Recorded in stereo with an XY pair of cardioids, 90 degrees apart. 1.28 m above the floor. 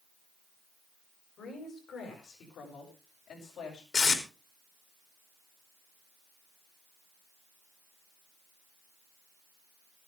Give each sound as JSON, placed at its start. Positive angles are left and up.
{"t": 1.4, "sound": "a woman speaking", "azimuth_deg": 70, "distance_m": 7.0}
{"t": 3.9, "sound": "tape being pulled", "azimuth_deg": 50, "distance_m": 3.0}